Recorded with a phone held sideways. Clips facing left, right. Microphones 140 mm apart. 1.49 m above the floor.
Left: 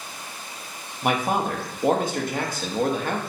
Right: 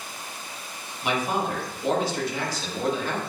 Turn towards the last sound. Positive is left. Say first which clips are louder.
# left 3 dB
turn(degrees=50)  # may be behind; listen again after turning